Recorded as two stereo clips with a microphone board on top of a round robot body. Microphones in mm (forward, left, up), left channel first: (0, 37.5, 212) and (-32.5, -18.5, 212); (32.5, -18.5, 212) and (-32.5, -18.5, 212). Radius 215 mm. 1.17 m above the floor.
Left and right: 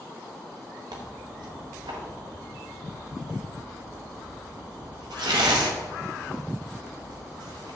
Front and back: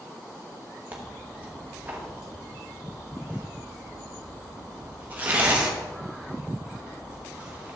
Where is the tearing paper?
115° right, 0.9 m.